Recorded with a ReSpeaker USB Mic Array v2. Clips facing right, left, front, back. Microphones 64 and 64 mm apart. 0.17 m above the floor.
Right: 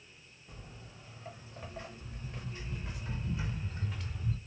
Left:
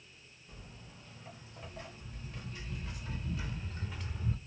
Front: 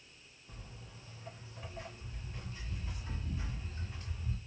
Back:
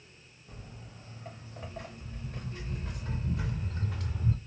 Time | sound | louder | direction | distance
0.5 | footsteps | right 2 dB, back 4 dB | 140° right | 3.5 m